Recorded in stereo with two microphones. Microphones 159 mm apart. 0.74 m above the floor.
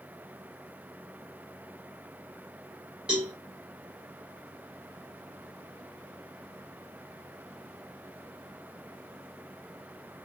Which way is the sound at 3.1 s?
5° right (ahead or behind).